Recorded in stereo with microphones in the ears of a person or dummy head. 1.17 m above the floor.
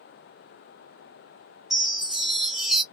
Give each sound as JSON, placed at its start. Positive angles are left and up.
{"t": 1.7, "sound": "a chime", "side_deg": -5, "distance_m": 0.6}